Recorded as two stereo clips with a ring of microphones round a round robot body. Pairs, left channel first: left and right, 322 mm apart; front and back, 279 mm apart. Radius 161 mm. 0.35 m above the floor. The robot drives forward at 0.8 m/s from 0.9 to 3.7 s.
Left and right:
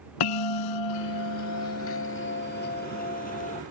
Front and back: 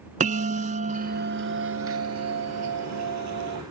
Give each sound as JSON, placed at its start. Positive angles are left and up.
{"t": 0.2, "sound": "a bell", "azimuth_deg": 115}